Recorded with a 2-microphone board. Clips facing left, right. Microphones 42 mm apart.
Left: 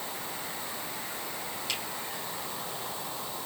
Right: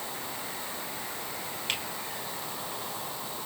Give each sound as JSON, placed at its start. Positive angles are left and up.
{"t": 1.7, "sound": "a finger snap", "side_deg": -45, "distance_m": 4.5}